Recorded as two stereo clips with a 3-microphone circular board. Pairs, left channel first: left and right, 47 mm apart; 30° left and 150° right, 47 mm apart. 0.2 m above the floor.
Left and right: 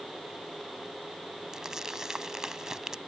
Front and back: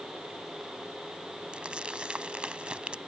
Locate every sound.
1.5 s crumpling: 145° right